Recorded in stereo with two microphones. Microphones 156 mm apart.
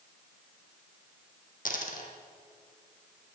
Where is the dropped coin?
60° left (ahead or behind), 1.7 m.